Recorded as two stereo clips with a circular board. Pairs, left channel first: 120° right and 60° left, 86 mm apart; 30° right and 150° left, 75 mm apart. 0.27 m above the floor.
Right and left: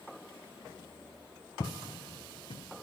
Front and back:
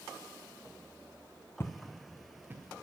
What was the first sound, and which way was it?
Footsteps, 80° right.